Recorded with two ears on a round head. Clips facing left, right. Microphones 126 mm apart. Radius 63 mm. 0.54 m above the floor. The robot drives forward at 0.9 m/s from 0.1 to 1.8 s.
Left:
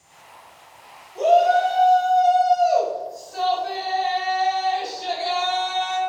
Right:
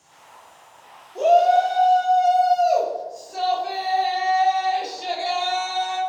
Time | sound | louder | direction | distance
1.1 | a shout | right 1 dB | 35° right (ahead or behind) | 0.8 m